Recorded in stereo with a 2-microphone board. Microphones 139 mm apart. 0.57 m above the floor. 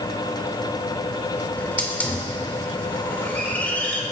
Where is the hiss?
10° left (ahead or behind), 2 m.